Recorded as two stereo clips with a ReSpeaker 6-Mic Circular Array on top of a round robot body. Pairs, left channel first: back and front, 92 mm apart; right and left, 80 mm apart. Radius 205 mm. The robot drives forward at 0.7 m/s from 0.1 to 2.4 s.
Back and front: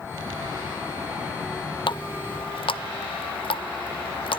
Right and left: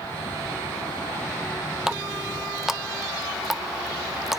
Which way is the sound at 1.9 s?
175° left.